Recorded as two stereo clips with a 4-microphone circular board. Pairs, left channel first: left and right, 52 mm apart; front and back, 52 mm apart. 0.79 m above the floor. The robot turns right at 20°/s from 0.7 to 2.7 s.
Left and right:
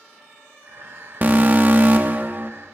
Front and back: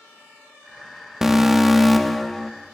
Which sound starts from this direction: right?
An alarm, at 1.2 s.